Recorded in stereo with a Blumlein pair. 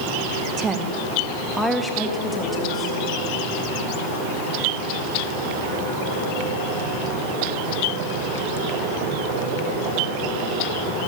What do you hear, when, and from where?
0.6 s a woman speaking: 20° right, 1.6 m; by 3.0 s 15° left, 2.5 m